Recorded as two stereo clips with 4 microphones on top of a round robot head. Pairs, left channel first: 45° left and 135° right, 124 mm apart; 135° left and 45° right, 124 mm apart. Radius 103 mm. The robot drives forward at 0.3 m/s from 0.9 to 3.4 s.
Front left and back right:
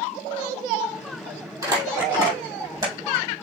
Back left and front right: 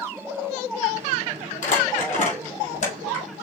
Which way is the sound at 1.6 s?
160° left.